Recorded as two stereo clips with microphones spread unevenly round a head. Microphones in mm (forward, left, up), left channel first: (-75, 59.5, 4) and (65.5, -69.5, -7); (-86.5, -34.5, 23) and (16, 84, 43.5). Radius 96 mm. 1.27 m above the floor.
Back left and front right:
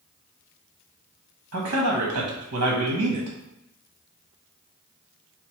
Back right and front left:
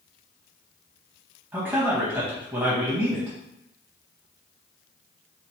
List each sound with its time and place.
1.5 s a man speaking: 25° right, 1.0 m